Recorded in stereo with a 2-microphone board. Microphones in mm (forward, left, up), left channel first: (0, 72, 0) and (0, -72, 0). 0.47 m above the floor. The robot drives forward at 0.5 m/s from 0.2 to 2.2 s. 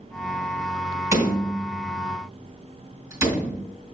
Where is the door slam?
20° right (ahead or behind), 3 m.